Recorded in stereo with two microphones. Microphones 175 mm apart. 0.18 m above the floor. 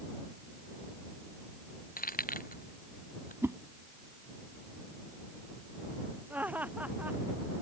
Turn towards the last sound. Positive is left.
turn(degrees=-10)  # may be behind; listen again after turning